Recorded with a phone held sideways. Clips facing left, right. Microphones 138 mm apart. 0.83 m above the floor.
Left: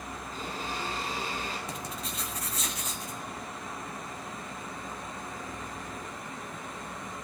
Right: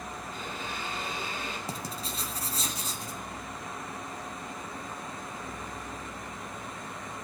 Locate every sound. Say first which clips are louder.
0.3 s a blender: left 4 dB; 35° left (ahead or behind), 10 m
1.7 s writing: right 1 dB; 35° right (ahead or behind), 1.7 m